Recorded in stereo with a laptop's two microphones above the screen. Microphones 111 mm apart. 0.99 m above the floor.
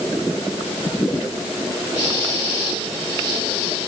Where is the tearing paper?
No tearing paper in this recording.